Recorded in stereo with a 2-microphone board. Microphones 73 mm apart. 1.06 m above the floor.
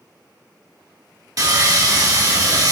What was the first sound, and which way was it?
Sawing, 50° right (ahead or behind).